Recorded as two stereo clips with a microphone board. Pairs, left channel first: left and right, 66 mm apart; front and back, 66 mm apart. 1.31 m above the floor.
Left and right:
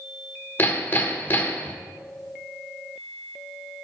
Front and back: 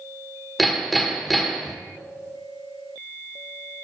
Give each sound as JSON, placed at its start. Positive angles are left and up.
{"t": 0.6, "sound": "hammering", "azimuth_deg": 90, "distance_m": 1.0}